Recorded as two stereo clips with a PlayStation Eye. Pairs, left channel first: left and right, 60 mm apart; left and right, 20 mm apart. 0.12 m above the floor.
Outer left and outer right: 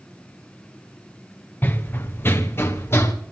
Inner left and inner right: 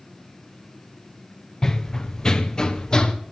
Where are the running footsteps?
30° left (ahead or behind), 1.3 m; by 3.1 s 40° left (ahead or behind), 2.5 m.